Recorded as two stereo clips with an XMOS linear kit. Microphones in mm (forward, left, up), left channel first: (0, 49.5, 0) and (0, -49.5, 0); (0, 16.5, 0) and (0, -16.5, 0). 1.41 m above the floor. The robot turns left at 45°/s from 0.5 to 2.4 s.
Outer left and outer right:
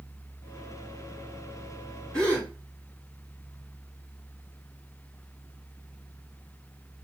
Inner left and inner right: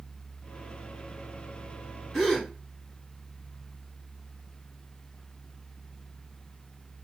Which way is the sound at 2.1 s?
10° left (ahead or behind).